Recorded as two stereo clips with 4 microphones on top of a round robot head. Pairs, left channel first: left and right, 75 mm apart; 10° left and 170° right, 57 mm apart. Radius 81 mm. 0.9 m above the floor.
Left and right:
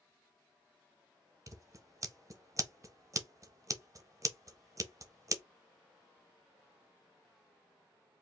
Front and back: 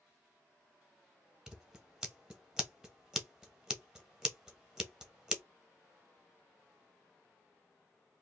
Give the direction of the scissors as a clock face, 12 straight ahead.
3 o'clock.